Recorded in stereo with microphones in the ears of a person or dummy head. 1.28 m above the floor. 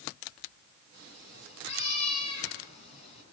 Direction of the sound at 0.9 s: 35° left (ahead or behind).